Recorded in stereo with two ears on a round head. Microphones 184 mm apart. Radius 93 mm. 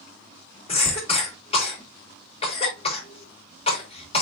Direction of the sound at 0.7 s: 30° left (ahead or behind).